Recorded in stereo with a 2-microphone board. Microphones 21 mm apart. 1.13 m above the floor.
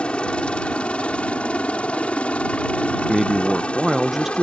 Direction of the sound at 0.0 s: 55° left (ahead or behind).